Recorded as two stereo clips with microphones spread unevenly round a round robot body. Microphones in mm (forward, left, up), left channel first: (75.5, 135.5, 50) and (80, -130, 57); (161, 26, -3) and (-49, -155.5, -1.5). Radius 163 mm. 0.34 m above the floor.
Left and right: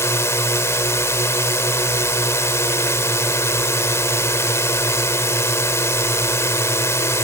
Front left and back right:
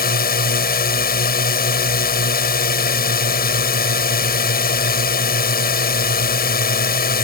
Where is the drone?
20° left.